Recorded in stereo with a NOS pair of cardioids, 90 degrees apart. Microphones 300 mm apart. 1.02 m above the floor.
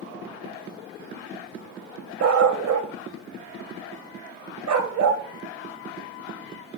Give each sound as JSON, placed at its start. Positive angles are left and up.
{"t": 2.2, "sound": "a dog barking", "azimuth_deg": -70, "distance_m": 2.5}